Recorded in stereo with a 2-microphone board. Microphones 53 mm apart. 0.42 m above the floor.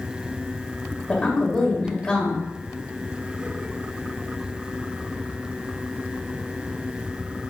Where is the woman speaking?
15° left (ahead or behind), 2.0 m.